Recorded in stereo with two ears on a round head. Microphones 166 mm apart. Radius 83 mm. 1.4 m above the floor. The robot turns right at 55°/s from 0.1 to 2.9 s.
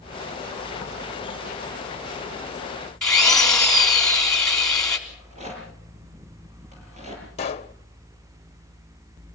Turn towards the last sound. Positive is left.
turn(degrees=35)  # may be behind; listen again after turning